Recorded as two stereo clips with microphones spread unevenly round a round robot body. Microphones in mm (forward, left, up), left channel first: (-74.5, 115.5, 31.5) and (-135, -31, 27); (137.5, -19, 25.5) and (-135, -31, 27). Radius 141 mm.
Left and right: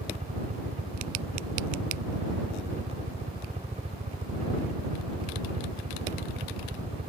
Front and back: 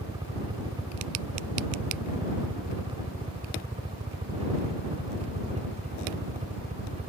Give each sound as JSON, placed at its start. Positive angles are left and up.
{"t": 0.0, "sound": "a helicopter", "azimuth_deg": -110}